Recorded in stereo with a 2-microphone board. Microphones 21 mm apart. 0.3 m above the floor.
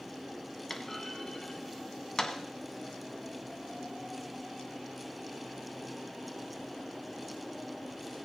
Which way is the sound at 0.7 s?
20° left (ahead or behind).